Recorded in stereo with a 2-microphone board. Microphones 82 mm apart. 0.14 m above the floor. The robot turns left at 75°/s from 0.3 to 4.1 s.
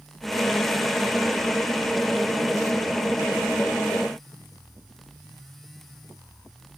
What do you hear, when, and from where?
Only background noise.